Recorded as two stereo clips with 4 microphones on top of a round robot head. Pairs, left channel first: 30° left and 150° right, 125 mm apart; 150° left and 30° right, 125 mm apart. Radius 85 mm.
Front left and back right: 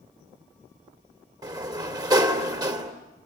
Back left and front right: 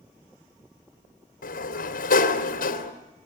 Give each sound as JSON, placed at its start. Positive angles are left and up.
{"t": 1.4, "sound": "a sliding door", "azimuth_deg": 150, "distance_m": 2.5}